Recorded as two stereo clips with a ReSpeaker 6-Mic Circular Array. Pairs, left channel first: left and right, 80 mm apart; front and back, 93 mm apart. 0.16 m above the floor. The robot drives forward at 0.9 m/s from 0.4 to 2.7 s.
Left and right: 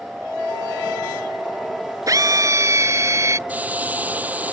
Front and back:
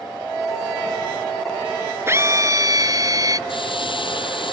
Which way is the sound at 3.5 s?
20° right.